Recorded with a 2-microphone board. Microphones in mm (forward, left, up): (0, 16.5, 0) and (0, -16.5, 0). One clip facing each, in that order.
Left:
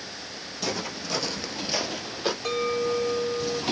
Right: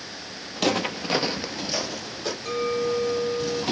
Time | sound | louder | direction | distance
0.6 | footsteps | right 7 dB | 60° right (ahead or behind) | 1.0 m
2.5 | a clink | right 2 dB | 80° left | 1.4 m